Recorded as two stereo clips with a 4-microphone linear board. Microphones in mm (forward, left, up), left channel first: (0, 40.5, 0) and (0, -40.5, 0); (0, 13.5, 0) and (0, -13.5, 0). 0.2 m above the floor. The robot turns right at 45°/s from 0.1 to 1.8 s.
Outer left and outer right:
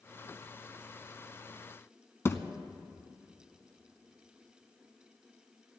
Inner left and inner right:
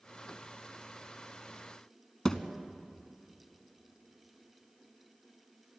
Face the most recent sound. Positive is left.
turn(degrees=30)  # may be behind; listen again after turning